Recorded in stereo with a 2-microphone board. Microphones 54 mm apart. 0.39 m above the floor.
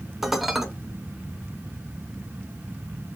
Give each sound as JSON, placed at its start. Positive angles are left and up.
{"t": 0.2, "sound": "dishes clattering", "side_deg": -5, "distance_m": 0.7}